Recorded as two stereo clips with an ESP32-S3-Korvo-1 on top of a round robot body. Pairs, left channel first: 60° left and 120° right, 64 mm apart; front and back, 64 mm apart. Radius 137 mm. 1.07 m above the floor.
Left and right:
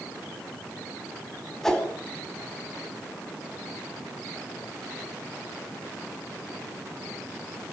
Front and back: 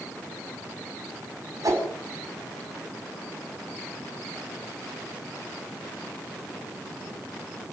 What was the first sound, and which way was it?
A whoosh, 140° left.